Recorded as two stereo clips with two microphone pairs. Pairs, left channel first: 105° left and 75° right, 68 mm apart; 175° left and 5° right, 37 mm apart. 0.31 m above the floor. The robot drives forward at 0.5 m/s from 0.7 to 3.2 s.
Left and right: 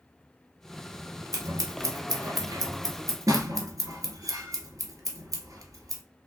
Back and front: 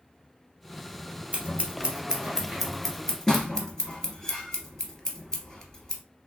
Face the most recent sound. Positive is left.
turn(degrees=-110)